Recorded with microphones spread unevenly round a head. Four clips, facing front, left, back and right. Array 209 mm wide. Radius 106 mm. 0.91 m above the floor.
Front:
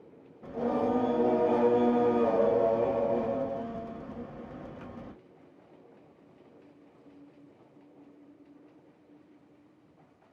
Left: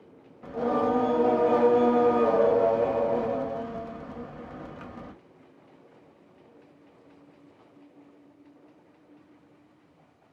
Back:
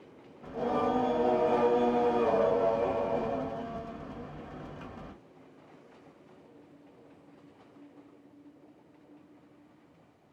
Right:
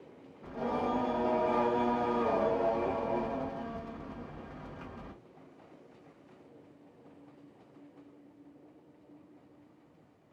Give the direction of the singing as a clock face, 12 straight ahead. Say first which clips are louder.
Left 7 dB, front 1 dB; 11 o'clock.